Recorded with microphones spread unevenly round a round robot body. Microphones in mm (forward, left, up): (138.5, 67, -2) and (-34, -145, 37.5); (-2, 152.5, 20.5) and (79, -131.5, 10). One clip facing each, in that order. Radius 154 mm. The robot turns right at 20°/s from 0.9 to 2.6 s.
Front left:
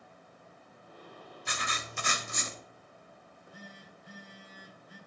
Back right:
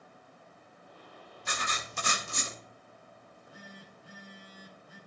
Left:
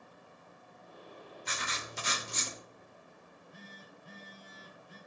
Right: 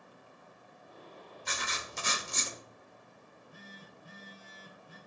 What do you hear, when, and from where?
1.4 s writing: 95° right, 1.5 m; by 2.6 s 75° right, 1.5 m
3.2 s a phone buzzing: 70° right, 5.5 m